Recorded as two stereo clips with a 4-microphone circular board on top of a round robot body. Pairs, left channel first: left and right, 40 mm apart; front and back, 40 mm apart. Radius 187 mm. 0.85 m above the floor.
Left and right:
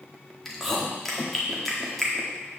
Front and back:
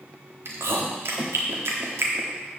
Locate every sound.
0.5 s chewing: 175° left, 1.4 m